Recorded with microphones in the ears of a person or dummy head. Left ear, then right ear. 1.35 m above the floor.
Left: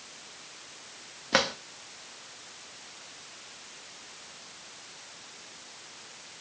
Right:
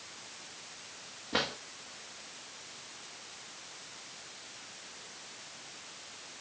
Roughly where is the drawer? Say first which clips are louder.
Left 7 dB; left.